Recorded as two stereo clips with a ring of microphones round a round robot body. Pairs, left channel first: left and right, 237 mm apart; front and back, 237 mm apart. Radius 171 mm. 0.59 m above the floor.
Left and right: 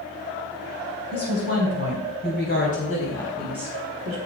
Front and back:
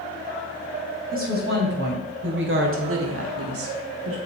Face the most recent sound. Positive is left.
turn(degrees=-140)